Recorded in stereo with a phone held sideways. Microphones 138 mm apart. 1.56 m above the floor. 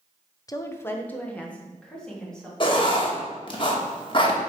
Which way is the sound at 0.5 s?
25° left (ahead or behind).